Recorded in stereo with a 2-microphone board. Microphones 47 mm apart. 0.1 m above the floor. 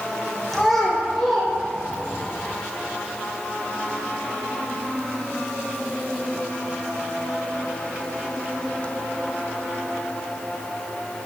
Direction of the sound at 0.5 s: 5° left (ahead or behind).